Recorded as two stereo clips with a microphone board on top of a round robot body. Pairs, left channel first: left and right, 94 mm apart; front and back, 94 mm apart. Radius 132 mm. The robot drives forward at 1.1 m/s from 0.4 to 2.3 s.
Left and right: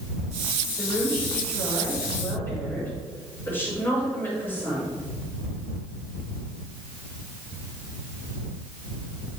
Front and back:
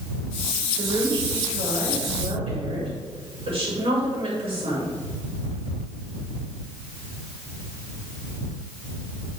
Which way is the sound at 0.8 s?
150° left.